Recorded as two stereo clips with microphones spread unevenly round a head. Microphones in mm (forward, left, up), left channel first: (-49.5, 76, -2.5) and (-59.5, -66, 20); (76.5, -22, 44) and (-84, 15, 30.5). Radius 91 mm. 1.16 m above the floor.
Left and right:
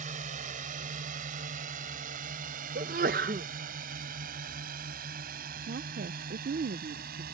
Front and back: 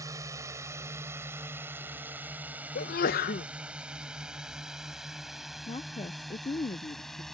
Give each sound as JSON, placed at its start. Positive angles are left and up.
{"t": 0.0, "sound": "a drone", "azimuth_deg": -120}
{"t": 2.8, "sound": "a sneeze", "azimuth_deg": -50}
{"t": 5.7, "sound": "a woman speaking", "azimuth_deg": -70}